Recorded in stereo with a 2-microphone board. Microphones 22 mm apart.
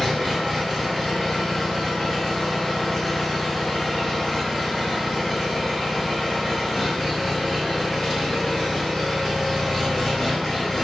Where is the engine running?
30° left (ahead or behind), 1.5 m.